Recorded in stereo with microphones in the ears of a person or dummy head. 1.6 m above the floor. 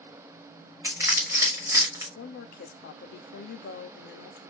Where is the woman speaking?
50° left (ahead or behind), 0.5 m.